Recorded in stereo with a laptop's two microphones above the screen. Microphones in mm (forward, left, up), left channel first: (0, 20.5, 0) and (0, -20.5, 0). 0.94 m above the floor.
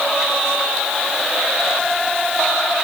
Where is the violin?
No violin in this recording.